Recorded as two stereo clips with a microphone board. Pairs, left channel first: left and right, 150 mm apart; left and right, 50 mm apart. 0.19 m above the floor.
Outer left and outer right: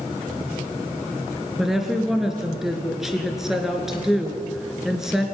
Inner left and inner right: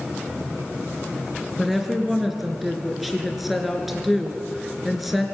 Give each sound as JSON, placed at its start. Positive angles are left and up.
{"t": 1.6, "sound": "a woman speaking", "side_deg": -5, "distance_m": 3.5}